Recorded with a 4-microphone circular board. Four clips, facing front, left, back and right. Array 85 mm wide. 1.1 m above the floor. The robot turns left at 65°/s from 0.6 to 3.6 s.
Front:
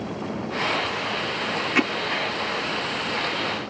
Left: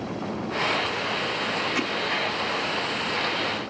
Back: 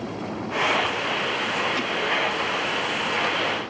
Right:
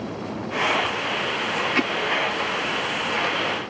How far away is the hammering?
About 1.1 m.